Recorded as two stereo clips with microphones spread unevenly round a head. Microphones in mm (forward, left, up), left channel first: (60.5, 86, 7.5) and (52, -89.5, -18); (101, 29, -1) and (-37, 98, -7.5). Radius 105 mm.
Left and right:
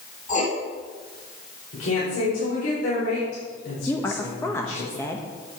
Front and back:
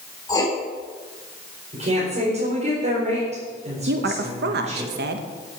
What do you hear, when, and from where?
0.3 s writing: 40° left, 3.5 m
1.7 s a woman speaking: 110° left, 4 m
3.9 s a woman speaking: 170° left, 1.0 m